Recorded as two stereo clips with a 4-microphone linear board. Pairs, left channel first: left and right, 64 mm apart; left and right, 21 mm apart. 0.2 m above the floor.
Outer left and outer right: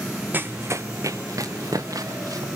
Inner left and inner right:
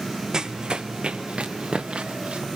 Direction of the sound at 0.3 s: 30° right (ahead or behind).